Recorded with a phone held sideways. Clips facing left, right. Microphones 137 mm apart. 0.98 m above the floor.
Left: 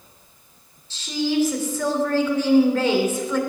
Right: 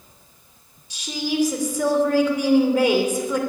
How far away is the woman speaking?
About 2.5 m.